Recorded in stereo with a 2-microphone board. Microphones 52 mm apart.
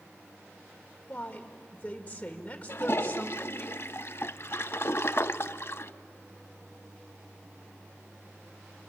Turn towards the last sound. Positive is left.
turn(degrees=50)  # may be behind; listen again after turning